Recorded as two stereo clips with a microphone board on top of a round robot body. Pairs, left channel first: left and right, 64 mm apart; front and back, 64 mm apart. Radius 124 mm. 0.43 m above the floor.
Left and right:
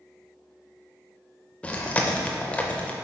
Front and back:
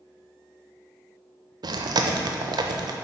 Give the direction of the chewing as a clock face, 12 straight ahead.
7 o'clock.